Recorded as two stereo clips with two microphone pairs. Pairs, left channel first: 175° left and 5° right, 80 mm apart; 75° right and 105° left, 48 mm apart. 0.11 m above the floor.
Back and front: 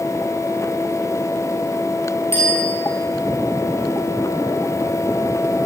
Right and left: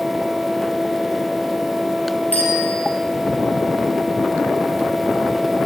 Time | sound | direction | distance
2.3 | a bicycle bell | 130° right | 6.5 m